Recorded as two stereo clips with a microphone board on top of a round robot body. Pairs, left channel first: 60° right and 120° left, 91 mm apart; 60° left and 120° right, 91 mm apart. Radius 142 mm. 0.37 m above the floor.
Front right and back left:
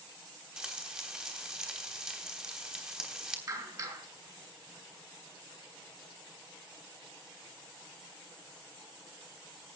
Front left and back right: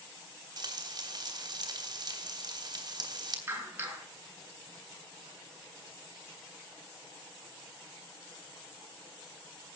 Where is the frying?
160° right, 3.5 m.